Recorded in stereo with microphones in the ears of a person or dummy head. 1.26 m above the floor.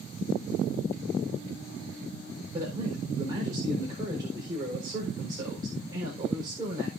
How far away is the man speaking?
About 4.5 m.